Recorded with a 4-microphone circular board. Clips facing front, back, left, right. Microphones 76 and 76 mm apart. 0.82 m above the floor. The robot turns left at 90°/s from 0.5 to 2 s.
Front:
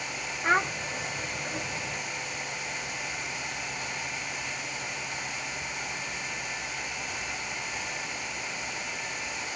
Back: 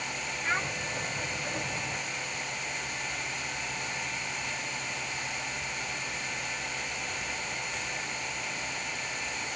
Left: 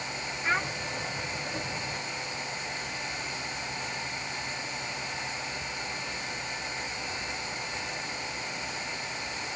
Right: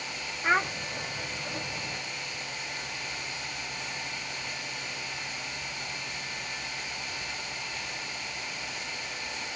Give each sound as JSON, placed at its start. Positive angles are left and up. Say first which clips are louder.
{"t": 0.4, "sound": "a child speaking", "louder": "front 7 dB, right 4 dB", "azimuth_deg": -30}